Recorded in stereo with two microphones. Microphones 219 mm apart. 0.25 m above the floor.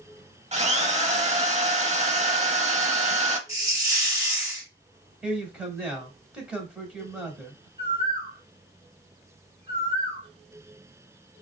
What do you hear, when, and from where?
0.5 s a drill: 30° right (ahead or behind), 0.6 m
3.5 s a hiss: 15° right (ahead or behind), 0.8 m
5.2 s a man speaking: 5° right (ahead or behind), 1.0 m
7.8 s a bird: 20° right (ahead or behind), 1.3 m